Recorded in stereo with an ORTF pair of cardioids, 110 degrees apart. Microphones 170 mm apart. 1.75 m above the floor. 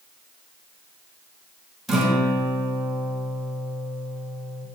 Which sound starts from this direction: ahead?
A guitar, at 1.9 s.